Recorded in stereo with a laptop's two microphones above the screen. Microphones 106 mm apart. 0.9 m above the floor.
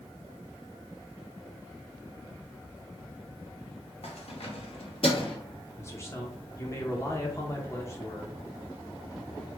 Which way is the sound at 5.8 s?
25° left (ahead or behind).